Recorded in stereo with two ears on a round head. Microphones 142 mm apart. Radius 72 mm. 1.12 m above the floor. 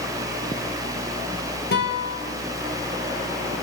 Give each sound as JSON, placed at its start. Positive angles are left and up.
{"t": 1.7, "sound": "a guitar", "side_deg": 70, "distance_m": 5.5}